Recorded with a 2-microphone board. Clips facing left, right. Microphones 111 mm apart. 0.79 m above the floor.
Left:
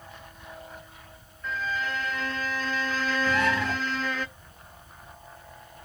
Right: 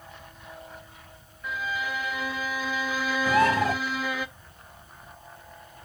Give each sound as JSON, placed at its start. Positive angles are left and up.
{"t": 1.4, "sound": "a violin", "side_deg": -10, "distance_m": 0.5}
{"t": 3.3, "sound": "a bird", "side_deg": -40, "distance_m": 1.7}